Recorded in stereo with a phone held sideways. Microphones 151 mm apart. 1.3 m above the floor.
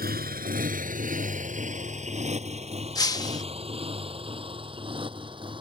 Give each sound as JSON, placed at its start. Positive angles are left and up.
{"t": 0.0, "sound": "a motorcycle", "side_deg": -80}
{"t": 3.0, "sound": "breaking glass", "side_deg": 25}